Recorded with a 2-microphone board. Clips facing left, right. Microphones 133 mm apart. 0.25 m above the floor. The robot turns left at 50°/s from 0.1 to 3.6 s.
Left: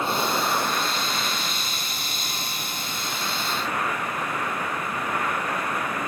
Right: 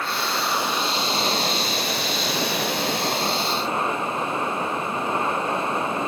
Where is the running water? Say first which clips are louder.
Left 2 dB; 20° left; by 6.1 s 155° right.